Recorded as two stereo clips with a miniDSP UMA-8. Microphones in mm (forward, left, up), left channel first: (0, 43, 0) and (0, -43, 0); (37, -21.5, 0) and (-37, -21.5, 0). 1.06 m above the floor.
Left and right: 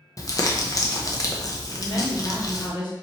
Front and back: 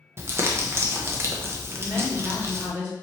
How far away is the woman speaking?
About 2 m.